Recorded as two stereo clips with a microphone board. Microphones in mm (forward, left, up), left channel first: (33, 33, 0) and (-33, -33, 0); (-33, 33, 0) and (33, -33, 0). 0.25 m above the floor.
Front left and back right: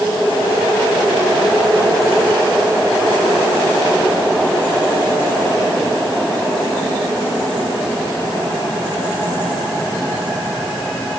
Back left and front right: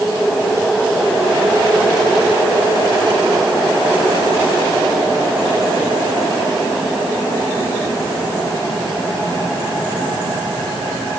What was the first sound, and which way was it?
Only background noise.